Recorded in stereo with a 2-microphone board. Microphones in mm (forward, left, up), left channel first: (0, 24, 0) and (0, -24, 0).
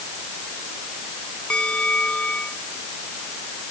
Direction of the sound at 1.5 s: 25° left (ahead or behind).